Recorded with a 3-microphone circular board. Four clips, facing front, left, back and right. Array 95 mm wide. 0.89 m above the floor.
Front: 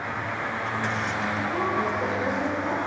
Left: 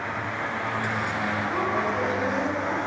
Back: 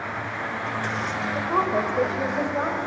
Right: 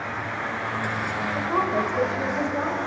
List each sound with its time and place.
1.4 s a woman speaking: 150° right, 4 m; by 2.8 s 160° right, 5 m